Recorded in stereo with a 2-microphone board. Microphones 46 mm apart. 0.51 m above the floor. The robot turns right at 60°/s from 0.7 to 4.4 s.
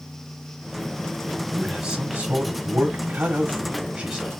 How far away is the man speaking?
About 1.4 m.